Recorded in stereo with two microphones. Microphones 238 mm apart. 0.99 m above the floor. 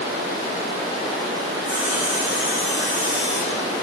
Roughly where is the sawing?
Left.